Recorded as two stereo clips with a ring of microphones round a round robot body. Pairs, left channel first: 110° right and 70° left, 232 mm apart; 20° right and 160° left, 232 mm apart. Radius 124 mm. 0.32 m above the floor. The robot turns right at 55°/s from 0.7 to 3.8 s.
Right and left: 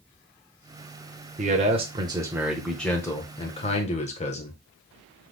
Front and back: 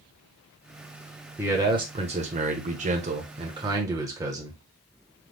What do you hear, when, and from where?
1.4 s a man speaking: 85° left, 1.0 m; by 4.6 s 140° right, 1.0 m